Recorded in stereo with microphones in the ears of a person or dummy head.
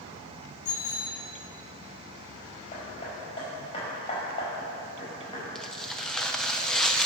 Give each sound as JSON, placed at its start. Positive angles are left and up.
{"t": 0.7, "sound": "a bicycle bell", "side_deg": 70, "distance_m": 5.0}
{"t": 2.7, "sound": "hammering", "side_deg": 35, "distance_m": 5.0}
{"t": 5.5, "sound": "tearing paper", "side_deg": 5, "distance_m": 0.7}